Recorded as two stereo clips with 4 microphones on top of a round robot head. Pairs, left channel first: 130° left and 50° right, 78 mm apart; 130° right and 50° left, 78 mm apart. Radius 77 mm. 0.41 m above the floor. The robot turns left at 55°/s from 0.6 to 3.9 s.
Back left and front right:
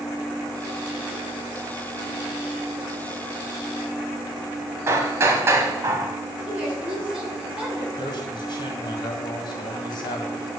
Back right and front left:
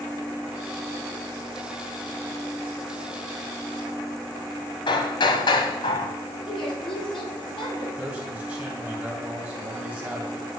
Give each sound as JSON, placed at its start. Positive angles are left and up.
{"t": 4.9, "sound": "hammering", "azimuth_deg": -105, "distance_m": 0.8}
{"t": 6.5, "sound": "a woman speaking", "azimuth_deg": -120, "distance_m": 3.5}
{"t": 8.0, "sound": "a man speaking", "azimuth_deg": 120, "distance_m": 2.5}